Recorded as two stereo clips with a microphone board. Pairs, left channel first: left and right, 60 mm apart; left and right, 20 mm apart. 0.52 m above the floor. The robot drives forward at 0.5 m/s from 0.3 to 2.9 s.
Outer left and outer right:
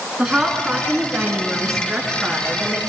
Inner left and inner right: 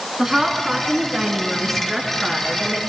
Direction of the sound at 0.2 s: 15° right (ahead or behind).